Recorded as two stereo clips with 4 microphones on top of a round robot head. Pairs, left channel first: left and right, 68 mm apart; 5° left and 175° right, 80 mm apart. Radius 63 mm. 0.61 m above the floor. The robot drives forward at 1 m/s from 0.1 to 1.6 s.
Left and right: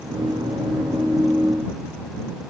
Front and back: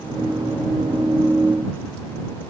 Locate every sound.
Only background noise.